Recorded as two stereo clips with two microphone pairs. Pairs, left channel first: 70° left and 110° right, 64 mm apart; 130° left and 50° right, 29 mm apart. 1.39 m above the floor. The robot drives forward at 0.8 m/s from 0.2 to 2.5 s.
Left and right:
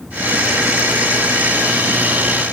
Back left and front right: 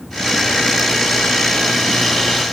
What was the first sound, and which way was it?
Only background noise.